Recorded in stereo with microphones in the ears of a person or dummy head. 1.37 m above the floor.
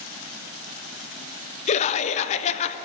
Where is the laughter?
35° left (ahead or behind), 0.7 m.